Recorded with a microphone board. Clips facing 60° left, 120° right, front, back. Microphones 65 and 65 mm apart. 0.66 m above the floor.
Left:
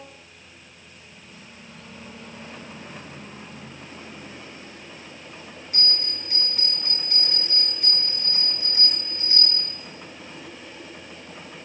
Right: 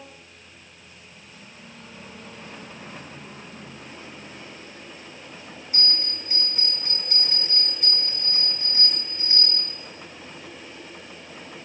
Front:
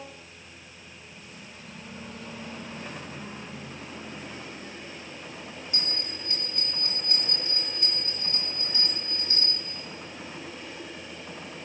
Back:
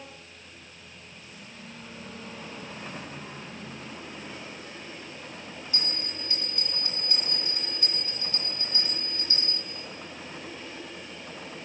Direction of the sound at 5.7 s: 40° right.